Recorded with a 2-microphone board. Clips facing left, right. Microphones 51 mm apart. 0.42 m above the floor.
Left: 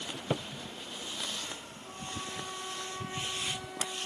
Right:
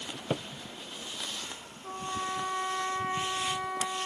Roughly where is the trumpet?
Right.